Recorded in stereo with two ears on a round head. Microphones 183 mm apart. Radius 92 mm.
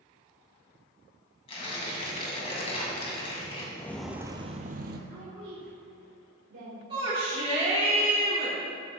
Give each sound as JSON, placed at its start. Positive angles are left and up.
{"t": 1.5, "sound": "tearing paper", "side_deg": 30, "distance_m": 2.0}
{"t": 3.8, "sound": "footsteps", "side_deg": 15, "distance_m": 0.8}
{"t": 5.1, "sound": "a woman speaking", "side_deg": -65, "distance_m": 2.5}
{"t": 6.9, "sound": "a shout", "side_deg": -25, "distance_m": 1.4}